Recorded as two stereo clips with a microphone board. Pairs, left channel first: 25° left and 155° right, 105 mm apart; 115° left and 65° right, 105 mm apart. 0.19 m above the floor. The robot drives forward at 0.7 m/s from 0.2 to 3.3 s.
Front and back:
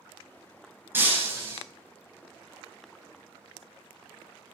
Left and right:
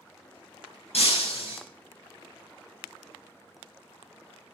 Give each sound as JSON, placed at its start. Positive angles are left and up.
{"t": 0.9, "sound": "breaking glass", "azimuth_deg": 130, "distance_m": 3.5}